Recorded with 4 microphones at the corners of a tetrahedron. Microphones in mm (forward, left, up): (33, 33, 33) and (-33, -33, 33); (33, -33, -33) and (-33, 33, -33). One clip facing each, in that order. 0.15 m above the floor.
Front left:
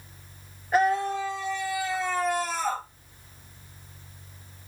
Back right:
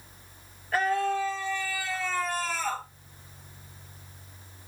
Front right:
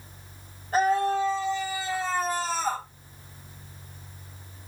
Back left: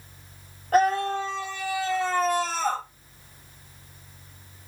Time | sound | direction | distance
0.7 | a scream | 115° left | 4 m